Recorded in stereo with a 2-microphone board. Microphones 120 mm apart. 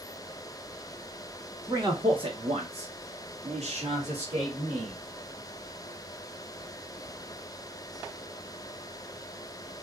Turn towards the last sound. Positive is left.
turn(degrees=-45)  # may be behind; listen again after turning